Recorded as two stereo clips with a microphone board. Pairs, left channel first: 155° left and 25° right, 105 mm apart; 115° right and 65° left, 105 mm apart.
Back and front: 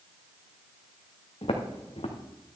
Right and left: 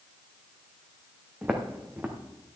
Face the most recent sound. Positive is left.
turn(degrees=140)